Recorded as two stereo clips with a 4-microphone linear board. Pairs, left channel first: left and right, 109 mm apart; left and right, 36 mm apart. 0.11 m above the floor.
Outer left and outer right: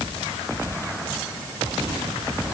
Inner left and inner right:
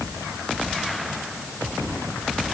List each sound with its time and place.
Only background noise.